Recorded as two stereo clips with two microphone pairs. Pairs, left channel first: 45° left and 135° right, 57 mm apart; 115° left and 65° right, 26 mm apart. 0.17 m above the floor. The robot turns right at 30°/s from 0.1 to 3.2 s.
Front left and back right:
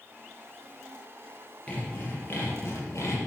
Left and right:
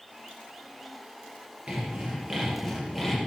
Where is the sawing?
25° right, 5.5 m; by 3.2 s 20° left, 5.5 m.